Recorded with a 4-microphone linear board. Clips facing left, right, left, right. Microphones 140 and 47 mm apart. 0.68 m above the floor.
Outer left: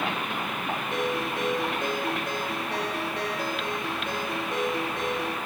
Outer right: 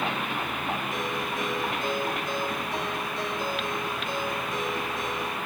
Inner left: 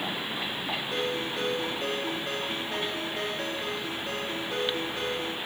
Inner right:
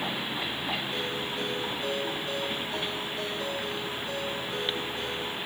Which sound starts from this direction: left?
A ringtone, at 0.9 s.